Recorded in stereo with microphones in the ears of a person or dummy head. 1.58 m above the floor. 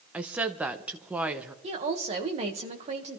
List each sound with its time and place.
0.1 s a woman speaking: 5° right (ahead or behind), 1.0 m
1.6 s a woman speaking: 35° right (ahead or behind), 1.9 m